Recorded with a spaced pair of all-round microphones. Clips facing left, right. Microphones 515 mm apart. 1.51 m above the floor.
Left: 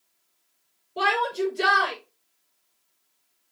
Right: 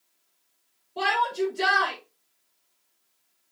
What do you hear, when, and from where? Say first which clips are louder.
1.0 s a shout: left 1 dB; 20° right (ahead or behind), 5.5 m